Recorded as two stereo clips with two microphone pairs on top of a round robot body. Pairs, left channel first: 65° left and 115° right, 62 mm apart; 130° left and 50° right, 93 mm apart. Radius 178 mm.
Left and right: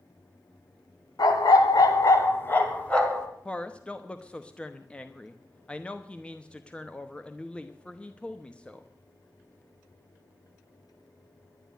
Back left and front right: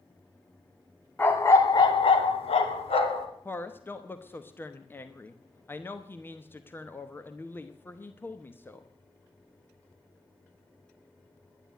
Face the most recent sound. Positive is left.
turn(degrees=115)